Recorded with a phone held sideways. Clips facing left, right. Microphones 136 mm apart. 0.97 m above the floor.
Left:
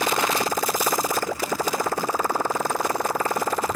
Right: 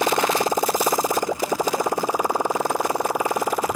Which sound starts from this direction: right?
A motorcycle, at 0.0 s.